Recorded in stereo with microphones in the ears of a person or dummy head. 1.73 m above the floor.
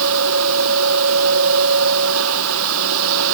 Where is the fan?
80° right.